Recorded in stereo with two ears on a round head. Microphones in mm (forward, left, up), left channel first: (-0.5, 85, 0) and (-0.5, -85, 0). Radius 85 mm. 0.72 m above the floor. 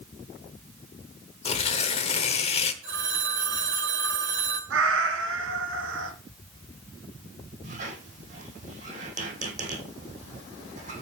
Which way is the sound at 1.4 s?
35° left (ahead or behind).